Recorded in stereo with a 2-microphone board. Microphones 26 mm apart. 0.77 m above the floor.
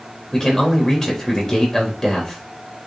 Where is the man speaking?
25° left (ahead or behind), 4 m.